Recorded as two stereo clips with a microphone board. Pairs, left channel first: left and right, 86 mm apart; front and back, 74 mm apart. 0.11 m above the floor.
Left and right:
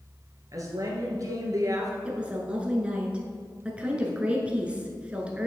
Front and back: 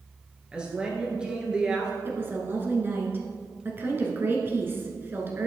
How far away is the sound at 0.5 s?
About 1.9 m.